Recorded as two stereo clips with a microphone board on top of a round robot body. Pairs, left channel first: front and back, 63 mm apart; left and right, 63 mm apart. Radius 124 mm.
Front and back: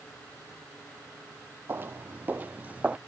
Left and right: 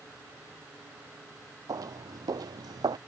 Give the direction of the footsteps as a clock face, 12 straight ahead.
4 o'clock.